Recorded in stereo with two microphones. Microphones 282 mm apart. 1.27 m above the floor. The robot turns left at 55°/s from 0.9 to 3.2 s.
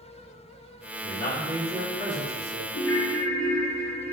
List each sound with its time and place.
1.0 s a man speaking: 40° left, 1.6 m; by 2.6 s 50° right, 1.6 m
2.7 s a ringtone: 65° left (ahead or behind), 2.0 m; by 4.1 s 40° left (ahead or behind), 2.0 m